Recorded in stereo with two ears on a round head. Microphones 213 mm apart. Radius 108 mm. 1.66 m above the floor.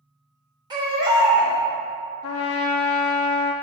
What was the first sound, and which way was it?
A baby crying, 20° right (ahead or behind).